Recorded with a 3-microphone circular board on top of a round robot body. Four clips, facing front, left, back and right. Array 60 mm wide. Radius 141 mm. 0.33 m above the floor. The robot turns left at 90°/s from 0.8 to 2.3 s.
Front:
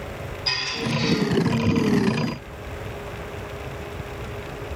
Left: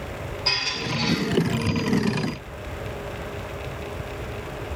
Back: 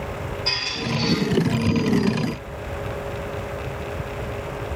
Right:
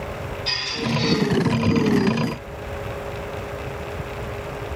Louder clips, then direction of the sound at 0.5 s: Right 2 dB, front 2 dB; 130° left.